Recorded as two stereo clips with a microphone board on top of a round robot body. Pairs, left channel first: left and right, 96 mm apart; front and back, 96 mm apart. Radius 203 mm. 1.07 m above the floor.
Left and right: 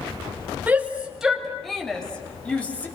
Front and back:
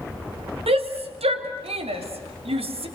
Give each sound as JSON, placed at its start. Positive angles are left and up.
{"t": 0.7, "sound": "a shout", "azimuth_deg": -165, "distance_m": 2.5}